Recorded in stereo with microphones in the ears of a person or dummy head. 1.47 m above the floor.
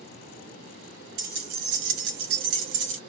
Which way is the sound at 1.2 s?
40° right (ahead or behind).